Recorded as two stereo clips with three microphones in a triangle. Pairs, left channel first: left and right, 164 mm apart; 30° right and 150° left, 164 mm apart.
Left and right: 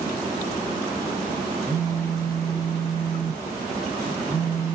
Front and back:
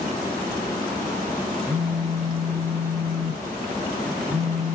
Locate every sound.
1.7 s a phone buzzing: 100° right, 1.3 m